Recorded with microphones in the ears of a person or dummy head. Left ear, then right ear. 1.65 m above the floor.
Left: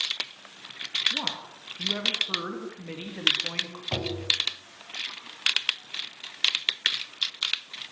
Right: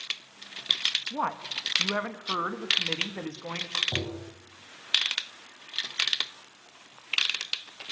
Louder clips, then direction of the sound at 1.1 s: Even; 60° right (ahead or behind).